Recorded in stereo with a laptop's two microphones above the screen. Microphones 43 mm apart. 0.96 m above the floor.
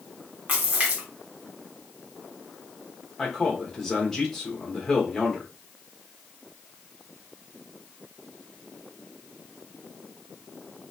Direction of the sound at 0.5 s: 30° right (ahead or behind).